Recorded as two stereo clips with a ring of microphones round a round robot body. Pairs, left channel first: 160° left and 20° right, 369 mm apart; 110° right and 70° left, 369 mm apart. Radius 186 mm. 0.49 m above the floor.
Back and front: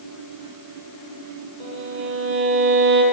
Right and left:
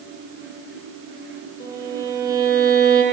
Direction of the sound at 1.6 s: 15° right.